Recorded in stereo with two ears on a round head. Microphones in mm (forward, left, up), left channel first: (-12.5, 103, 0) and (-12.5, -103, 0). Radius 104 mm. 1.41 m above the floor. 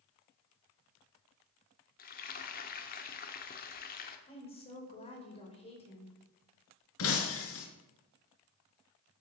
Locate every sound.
2.0 s frying: 40° left (ahead or behind), 1.4 m
4.3 s a woman speaking: 25° left (ahead or behind), 4.5 m
7.0 s breaking glass: 65° left (ahead or behind), 3 m